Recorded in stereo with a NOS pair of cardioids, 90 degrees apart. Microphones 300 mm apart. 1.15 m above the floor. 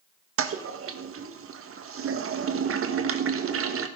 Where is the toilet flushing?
45° right, 1.4 m.